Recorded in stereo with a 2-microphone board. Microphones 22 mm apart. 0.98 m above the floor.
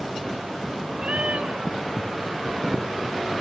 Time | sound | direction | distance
1.0 | a cat meowing | 65° right (ahead or behind) | 2.0 m